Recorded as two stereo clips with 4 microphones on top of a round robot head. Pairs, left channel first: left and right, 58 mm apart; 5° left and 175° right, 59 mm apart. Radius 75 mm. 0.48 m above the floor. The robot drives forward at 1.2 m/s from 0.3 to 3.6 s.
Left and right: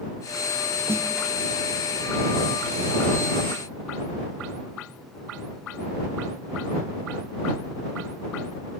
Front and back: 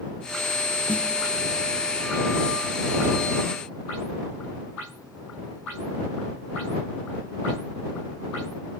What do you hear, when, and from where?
0.9 s a snare drum: 55° right, 1.4 m; by 1.1 s 65° right, 1.3 m